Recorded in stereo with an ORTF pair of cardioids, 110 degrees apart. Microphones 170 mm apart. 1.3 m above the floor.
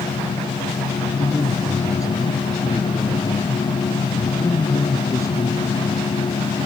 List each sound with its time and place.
0.0 s a machine running: 30° left
1.2 s a woman speaking: 20° left